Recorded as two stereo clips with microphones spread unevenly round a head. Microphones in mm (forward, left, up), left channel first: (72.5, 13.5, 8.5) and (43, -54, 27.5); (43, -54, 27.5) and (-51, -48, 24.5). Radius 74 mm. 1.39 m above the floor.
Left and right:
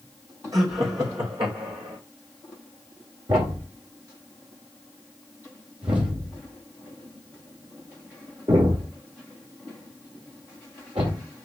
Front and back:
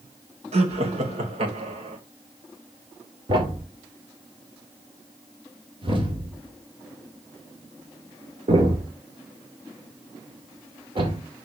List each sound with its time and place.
0.5 s laughter: straight behind, 2.0 m; by 2.0 s 170° right, 3 m
3.3 s a thud: 155° right, 2.5 m